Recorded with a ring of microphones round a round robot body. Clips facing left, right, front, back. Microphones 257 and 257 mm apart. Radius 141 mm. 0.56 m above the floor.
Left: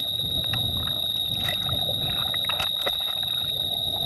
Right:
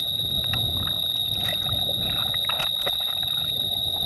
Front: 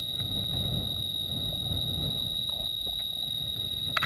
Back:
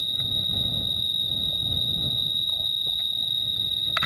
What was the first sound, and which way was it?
An insect, 105° right.